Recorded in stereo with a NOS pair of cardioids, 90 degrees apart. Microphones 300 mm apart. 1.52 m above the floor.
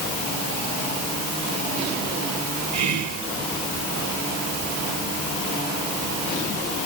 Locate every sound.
2.7 s whispering: 70° right, 1.4 m